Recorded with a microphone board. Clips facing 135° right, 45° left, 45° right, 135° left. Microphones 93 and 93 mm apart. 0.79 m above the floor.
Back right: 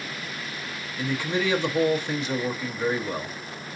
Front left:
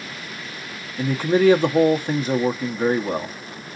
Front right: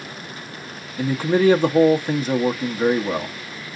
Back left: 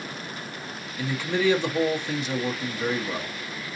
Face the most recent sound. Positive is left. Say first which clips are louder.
# front left 9 dB, front right 7 dB
turn(degrees=0)